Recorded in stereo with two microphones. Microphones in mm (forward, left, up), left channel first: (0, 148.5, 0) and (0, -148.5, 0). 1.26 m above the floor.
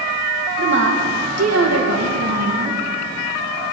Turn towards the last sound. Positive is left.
turn(degrees=-65)  # may be behind; listen again after turning